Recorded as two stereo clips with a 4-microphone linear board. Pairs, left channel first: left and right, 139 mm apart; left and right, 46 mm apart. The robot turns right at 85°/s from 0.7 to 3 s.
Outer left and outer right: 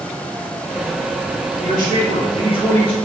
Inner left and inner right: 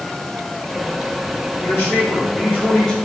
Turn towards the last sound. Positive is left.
turn(degrees=170)